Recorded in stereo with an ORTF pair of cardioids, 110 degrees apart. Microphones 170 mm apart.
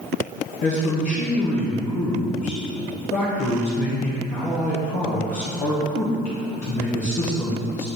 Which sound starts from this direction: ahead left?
A man speaking, at 0.6 s.